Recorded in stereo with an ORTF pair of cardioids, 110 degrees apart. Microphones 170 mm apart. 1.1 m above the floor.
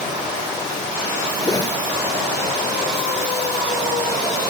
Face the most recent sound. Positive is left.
turn(degrees=20)